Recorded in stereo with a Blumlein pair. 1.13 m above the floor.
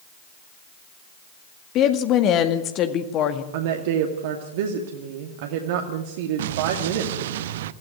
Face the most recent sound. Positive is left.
turn(degrees=-55)